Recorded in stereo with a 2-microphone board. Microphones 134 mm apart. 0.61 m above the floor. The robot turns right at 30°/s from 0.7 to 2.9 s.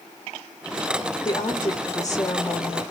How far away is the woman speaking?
About 0.9 m.